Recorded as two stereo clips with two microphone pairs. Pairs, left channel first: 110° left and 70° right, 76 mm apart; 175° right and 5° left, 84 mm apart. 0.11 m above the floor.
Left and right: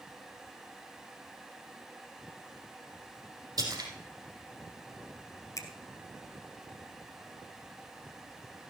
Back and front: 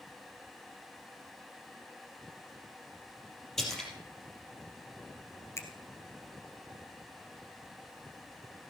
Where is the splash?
90° right, 3.5 m.